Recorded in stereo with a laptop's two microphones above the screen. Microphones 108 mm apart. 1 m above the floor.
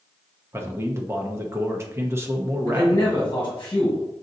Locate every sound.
0.5 s a man speaking: 25° right (ahead or behind), 0.7 m
2.7 s a man speaking: 35° left (ahead or behind), 1.5 m